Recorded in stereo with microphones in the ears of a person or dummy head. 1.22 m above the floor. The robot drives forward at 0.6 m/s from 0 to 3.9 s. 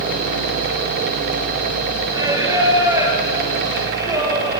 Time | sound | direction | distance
2.1 | singing | 15° right (ahead or behind) | 4.5 m